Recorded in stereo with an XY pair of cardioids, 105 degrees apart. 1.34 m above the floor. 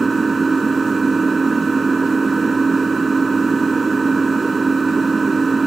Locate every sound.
0.0 s an engine running: 30° right